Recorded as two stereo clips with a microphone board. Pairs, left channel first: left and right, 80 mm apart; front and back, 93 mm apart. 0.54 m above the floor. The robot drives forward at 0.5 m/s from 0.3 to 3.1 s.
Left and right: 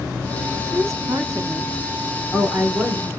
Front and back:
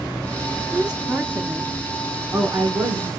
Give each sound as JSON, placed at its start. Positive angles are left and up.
{"t": 0.7, "sound": "a woman speaking", "azimuth_deg": -95, "distance_m": 0.9}